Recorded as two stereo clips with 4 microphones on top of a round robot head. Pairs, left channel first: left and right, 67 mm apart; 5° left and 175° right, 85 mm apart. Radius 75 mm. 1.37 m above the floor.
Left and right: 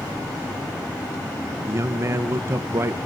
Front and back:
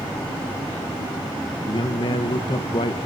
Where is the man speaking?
40° right, 1.1 m.